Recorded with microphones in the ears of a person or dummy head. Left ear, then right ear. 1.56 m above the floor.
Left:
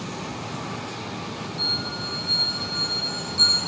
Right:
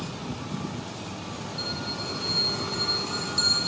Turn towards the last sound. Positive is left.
turn(degrees=-25)  # may be behind; listen again after turning